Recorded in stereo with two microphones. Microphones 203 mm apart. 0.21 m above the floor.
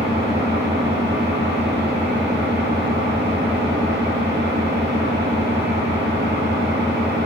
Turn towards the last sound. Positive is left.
turn(degrees=-60)  # may be behind; listen again after turning